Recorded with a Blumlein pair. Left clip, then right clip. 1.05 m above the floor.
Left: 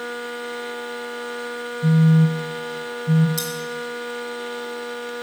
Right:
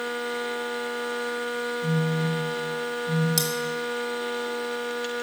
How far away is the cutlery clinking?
About 1.8 m.